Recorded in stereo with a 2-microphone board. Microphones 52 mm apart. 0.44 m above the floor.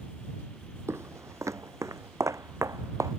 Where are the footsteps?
65° right (ahead or behind); by 3.1 s 80° right.